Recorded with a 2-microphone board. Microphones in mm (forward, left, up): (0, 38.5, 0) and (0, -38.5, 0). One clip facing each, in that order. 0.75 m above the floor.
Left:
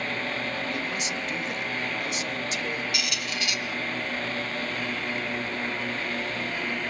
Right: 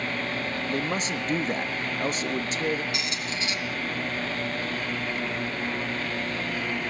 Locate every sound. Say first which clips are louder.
0.7 s a man speaking: right 3 dB; 35° right (ahead or behind), 0.9 m
2.9 s a squeak: even; 30° right (ahead or behind), 1.0 m